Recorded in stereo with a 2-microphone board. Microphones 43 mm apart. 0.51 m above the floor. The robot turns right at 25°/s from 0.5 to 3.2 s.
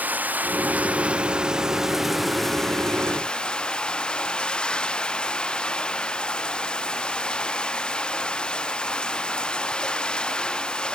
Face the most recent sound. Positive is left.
turn(degrees=20)